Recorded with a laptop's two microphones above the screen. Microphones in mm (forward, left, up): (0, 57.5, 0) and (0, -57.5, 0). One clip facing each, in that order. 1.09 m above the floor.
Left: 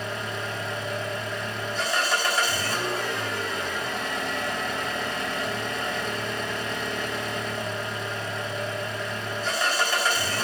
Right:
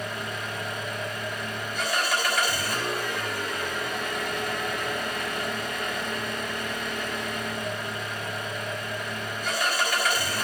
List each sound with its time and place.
0.0 s an engine running: 30° left (ahead or behind), 3.5 m